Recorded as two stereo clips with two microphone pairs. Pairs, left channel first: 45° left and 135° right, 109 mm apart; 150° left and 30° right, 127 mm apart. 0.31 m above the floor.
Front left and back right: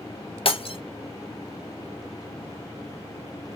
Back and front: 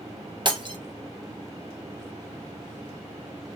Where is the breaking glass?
20° left, 0.6 m.